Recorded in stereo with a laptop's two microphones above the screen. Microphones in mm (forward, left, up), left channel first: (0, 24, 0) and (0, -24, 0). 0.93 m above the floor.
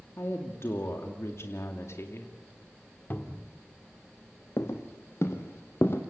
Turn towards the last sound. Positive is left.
turn(degrees=55)  # may be behind; listen again after turning